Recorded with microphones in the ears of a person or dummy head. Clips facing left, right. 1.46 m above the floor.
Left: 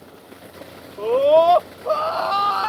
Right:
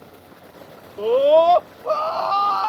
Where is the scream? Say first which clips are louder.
Even; 15° right (ahead or behind); by 2.7 s 25° left (ahead or behind).